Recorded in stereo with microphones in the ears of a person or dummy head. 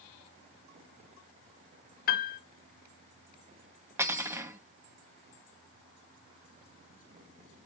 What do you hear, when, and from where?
2.1 s a piano: 40° left (ahead or behind), 0.8 m
4.0 s cutlery clinking: 10° right (ahead or behind), 0.8 m